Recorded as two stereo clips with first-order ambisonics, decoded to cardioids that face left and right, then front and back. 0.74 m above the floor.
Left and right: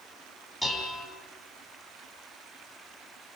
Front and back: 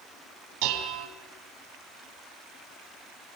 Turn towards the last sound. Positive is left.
turn(degrees=180)